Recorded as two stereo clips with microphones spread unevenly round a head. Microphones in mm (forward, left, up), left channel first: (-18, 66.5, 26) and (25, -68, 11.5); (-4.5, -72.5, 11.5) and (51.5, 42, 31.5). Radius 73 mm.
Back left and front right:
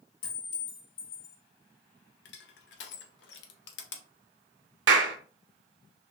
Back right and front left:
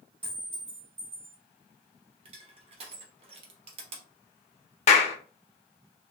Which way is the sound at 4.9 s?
80° right.